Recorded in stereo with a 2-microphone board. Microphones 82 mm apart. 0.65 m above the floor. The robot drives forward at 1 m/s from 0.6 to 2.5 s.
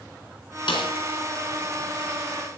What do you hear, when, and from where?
0.7 s a snare drum: 85° left, 3 m; by 0.9 s 80° left, 3 m